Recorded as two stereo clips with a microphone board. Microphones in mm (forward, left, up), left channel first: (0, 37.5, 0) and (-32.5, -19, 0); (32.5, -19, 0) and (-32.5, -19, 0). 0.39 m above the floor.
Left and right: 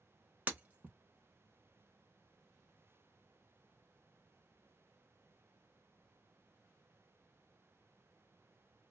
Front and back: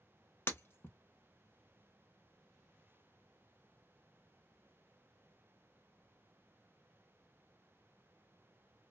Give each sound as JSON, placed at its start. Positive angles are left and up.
{"t": 0.5, "sound": "breaking glass", "azimuth_deg": -50, "distance_m": 0.8}